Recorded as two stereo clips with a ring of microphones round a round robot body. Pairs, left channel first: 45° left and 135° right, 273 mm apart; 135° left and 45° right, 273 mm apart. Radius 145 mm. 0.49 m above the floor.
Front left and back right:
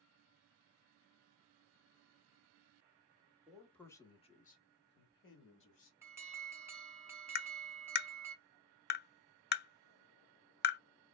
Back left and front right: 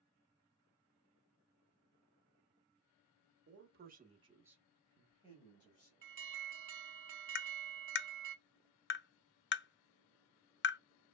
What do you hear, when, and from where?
3.5 s a man speaking: 50° right, 1.3 m; by 5.9 s 80° left, 1.8 m
6.0 s an alarm: 55° right, 1.3 m
7.3 s tapping: 90° left, 0.5 m